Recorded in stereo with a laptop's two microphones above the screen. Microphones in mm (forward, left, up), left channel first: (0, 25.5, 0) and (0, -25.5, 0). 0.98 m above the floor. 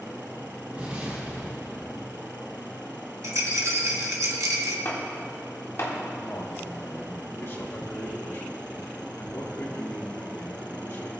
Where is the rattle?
80° right, 1.2 m.